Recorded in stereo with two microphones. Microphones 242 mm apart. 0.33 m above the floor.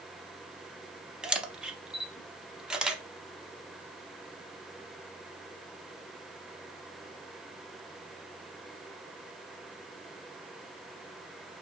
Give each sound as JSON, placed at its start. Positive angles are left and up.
{"t": 1.2, "sound": "a camera shutter", "side_deg": -5, "distance_m": 0.5}